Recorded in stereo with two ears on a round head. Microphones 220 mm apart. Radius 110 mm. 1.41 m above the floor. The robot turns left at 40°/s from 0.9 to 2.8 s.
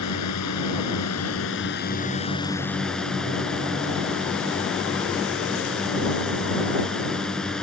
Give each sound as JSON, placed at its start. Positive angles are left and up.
{"t": 0.0, "sound": "a drone", "azimuth_deg": 80}